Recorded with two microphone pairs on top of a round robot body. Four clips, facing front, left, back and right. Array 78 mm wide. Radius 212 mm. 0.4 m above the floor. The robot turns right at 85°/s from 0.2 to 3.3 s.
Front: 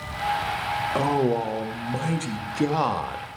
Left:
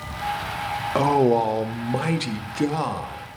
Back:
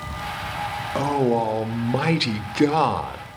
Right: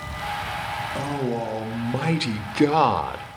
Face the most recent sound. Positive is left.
turn(degrees=-75)